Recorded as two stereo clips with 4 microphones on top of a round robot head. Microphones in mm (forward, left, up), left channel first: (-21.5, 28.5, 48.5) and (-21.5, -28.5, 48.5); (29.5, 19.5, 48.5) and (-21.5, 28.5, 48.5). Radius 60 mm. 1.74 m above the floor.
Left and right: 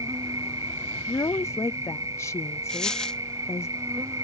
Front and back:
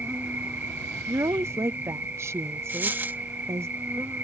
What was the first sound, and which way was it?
An insect, 120° right.